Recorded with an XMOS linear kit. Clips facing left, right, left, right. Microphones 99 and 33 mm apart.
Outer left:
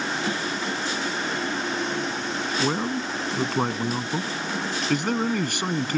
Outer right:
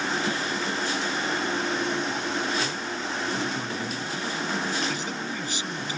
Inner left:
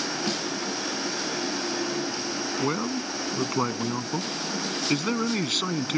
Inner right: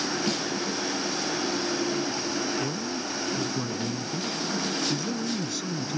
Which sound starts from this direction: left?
A man speaking, at 2.6 s.